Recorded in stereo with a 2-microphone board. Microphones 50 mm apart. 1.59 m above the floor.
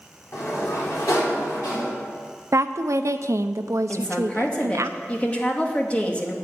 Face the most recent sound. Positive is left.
turn(degrees=20)  # may be behind; listen again after turning